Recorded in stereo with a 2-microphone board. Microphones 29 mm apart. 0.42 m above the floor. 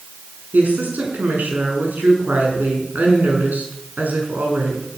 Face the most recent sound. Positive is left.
turn(degrees=-75)  # may be behind; listen again after turning